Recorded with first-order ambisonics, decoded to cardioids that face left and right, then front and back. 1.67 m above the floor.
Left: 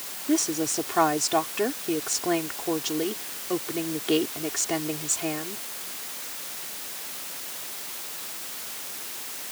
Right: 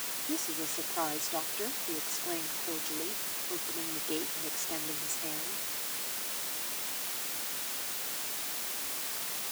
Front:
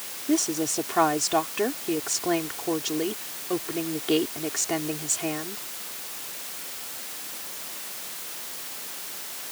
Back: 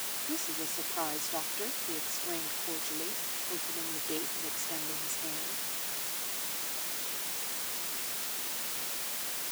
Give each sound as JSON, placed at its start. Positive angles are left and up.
{"t": 0.3, "sound": "a woman speaking", "azimuth_deg": 40}